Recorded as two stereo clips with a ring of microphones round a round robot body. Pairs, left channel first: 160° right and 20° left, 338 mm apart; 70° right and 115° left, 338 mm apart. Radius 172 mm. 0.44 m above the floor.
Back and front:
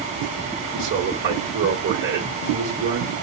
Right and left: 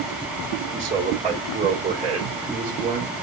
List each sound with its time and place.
0.7 s a man speaking: 55° left, 1.5 m